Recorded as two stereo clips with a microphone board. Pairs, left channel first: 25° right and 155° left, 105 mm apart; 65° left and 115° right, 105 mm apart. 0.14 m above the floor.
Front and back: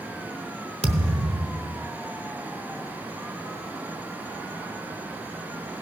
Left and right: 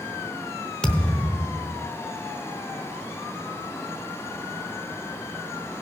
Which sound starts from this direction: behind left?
A thud, at 0.8 s.